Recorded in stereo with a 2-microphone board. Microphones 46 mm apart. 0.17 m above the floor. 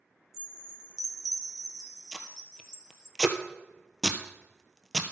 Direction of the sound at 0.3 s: 10° right (ahead or behind).